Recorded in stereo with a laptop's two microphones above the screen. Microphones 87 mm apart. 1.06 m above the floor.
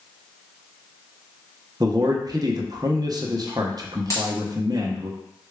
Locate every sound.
1.8 s a man speaking: 45° right (ahead or behind), 0.7 m
4.1 s a dropped coin: 35° left (ahead or behind), 1.9 m